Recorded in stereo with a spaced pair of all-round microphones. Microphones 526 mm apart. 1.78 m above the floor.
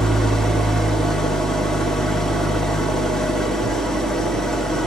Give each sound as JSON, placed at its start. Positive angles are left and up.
{"t": 0.0, "sound": "an engine running", "side_deg": 0, "distance_m": 0.8}